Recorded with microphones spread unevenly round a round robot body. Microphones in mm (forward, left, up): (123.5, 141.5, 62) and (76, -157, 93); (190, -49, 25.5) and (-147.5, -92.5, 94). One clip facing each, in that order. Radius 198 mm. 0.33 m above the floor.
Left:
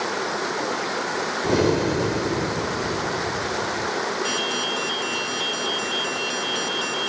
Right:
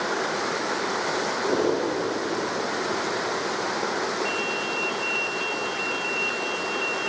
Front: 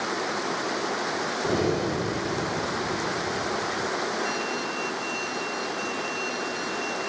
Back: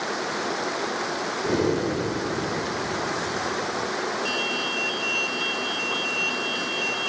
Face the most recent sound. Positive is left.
turn(degrees=110)